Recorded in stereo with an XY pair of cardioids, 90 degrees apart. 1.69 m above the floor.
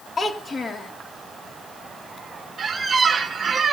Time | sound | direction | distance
0.2 | a child speaking | 30° left | 2 m
2.6 | a squeak | 45° right | 2.5 m